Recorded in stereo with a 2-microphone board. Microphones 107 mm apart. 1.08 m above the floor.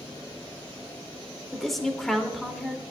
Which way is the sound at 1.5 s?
Centre (ahead or behind).